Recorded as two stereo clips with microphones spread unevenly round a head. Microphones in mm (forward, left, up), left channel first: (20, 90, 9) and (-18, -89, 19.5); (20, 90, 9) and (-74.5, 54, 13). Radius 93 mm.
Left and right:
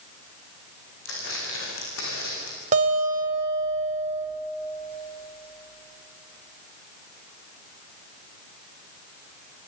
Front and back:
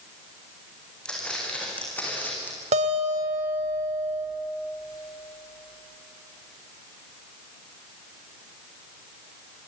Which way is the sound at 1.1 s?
100° left.